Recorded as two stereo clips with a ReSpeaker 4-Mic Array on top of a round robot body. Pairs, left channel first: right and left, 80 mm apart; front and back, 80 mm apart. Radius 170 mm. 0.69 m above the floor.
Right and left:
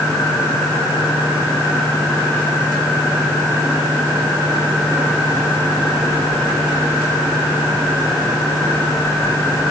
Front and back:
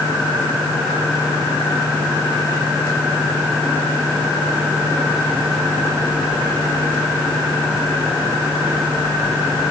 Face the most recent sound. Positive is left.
No sound to turn to.